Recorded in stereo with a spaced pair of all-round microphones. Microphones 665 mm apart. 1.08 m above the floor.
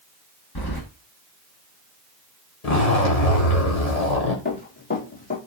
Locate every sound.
0.6 s keys jangling: 35° left (ahead or behind), 1.4 m
2.6 s a zipper: 65° left (ahead or behind), 1.7 m
4.5 s running footsteps: 15° left (ahead or behind), 5.5 m